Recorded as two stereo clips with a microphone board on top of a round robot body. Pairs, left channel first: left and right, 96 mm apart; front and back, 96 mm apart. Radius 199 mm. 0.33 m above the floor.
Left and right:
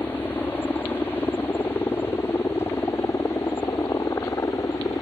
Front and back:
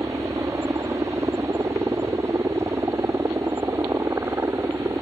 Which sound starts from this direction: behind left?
A helicopter, at 0.0 s.